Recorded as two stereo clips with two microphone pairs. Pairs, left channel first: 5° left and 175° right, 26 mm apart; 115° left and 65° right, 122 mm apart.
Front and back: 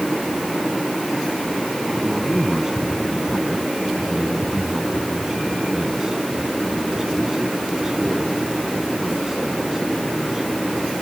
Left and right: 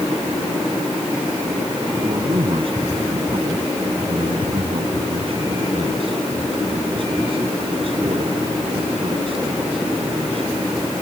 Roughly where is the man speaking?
Right.